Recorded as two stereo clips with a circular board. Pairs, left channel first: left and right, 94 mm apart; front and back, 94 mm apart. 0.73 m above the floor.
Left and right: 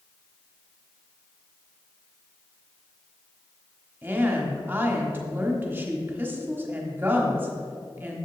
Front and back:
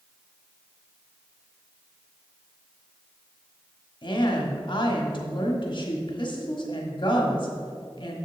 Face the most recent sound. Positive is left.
turn(degrees=-25)